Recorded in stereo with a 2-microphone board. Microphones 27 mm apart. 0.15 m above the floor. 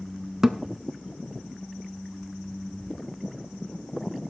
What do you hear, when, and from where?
0.4 s a thud: 15° right (ahead or behind), 0.7 m